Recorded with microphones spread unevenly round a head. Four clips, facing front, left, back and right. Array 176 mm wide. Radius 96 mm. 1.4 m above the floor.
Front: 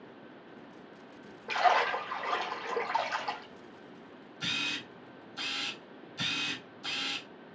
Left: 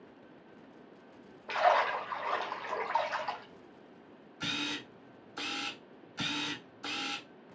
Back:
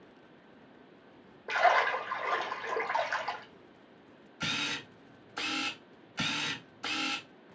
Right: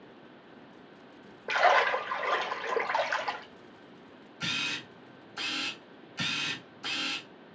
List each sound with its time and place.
1.5 s a splash: 95° right, 1.6 m
4.4 s a camera shutter: 170° right, 1.3 m